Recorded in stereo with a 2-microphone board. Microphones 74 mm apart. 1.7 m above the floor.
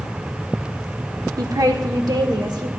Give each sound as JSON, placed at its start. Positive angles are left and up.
{"t": 1.4, "sound": "a woman speaking", "side_deg": -55, "distance_m": 0.8}